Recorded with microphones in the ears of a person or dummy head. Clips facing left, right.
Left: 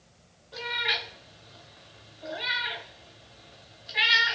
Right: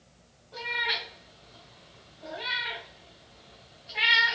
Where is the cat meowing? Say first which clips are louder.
Left 1 dB; 25° left (ahead or behind), 1.0 m.